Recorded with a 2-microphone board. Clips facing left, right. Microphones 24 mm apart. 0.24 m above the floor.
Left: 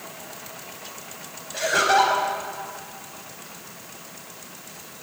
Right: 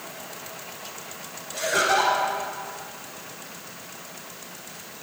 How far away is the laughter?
About 1.0 m.